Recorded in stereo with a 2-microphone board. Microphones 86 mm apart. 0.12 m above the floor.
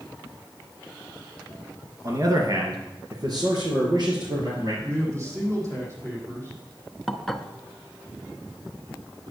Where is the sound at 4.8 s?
35° right (ahead or behind), 5 m.